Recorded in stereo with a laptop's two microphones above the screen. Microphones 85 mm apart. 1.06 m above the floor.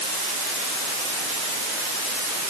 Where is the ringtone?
No ringtone in this recording.